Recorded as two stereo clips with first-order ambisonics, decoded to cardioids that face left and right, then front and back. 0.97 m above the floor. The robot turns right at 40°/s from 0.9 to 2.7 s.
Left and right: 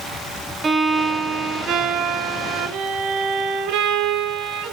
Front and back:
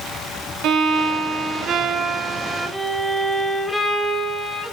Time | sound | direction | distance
0.6 | a violin | 160° right | 0.5 m